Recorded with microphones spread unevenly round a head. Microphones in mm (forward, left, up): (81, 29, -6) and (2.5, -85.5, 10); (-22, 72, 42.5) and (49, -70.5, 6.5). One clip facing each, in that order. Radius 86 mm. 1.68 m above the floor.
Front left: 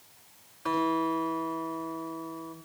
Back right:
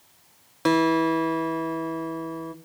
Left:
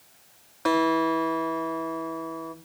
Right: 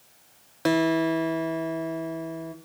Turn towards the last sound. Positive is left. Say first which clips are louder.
# back right 7 dB, right 1 dB
turn(degrees=-125)